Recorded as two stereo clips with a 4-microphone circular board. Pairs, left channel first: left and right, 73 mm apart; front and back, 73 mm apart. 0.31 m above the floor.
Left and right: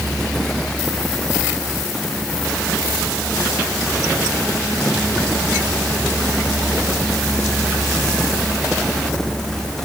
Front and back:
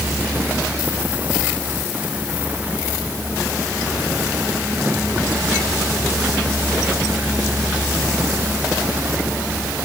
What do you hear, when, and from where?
Only background noise.